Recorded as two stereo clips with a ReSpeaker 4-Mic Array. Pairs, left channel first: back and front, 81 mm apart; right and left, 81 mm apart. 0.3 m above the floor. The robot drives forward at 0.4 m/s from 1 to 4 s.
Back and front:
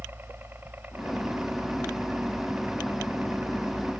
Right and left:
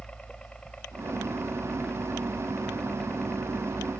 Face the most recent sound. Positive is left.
turn(degrees=-20)